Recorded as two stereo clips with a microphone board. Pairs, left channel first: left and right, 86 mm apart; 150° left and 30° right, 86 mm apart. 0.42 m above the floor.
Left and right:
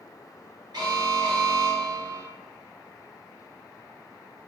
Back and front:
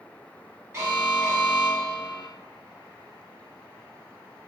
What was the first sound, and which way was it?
An alarm, 75° right.